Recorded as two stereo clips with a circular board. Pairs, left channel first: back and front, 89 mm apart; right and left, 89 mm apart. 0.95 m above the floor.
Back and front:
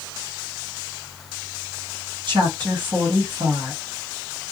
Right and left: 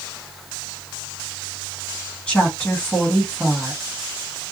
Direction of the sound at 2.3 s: 15° right.